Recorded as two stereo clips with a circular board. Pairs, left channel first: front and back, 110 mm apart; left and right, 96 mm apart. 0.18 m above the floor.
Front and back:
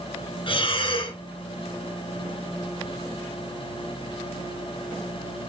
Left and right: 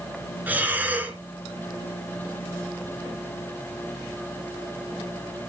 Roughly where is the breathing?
Ahead.